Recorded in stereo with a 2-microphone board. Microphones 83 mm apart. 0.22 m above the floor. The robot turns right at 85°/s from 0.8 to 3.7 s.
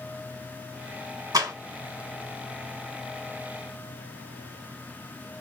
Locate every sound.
1.3 s a clap: 50° right (ahead or behind), 1.6 m; by 1.5 s 45° right (ahead or behind), 1.6 m